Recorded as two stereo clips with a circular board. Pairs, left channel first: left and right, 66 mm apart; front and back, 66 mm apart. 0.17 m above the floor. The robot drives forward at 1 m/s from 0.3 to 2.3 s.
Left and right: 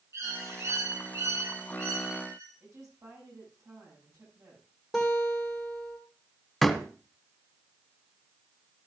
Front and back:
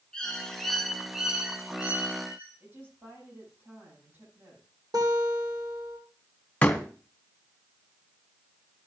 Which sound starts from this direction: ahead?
A door slam, at 6.6 s.